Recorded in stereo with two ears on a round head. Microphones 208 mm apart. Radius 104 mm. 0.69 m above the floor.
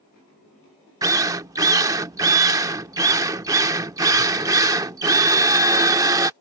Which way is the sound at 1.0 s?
15° right (ahead or behind).